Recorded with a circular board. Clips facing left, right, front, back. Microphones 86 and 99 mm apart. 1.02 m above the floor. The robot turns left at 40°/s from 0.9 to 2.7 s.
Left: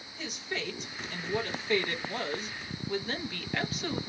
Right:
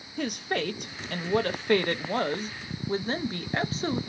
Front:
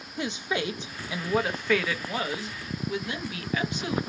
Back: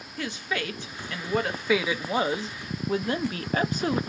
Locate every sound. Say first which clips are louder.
0.2 s a woman speaking: right 8 dB, front 2 dB; 70° right, 0.5 m; by 4.0 s 140° right, 0.5 m